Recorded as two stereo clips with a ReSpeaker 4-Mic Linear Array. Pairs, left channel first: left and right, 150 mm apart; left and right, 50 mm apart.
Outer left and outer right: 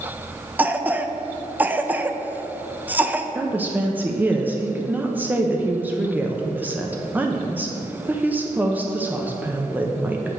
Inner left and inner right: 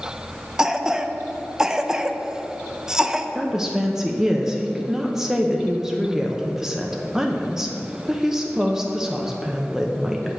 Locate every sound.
0.6 s a cough: 10° right (ahead or behind), 0.6 m
3.4 s a woman speaking: 10° right (ahead or behind), 0.8 m